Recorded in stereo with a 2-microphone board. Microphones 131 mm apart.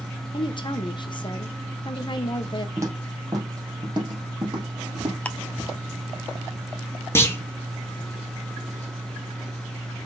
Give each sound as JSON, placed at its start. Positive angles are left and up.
{"t": 0.3, "sound": "a woman speaking", "side_deg": 35, "distance_m": 1.1}
{"t": 2.8, "sound": "footsteps", "side_deg": -20, "distance_m": 2.5}
{"t": 5.2, "sound": "ticking", "side_deg": 10, "distance_m": 0.7}
{"t": 7.2, "sound": "a clunk", "side_deg": 20, "distance_m": 1.4}